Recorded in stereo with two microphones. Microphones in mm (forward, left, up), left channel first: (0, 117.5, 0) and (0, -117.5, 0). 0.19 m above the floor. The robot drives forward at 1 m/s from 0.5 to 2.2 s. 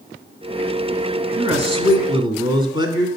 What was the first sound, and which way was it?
A man speaking, 30° right (ahead or behind).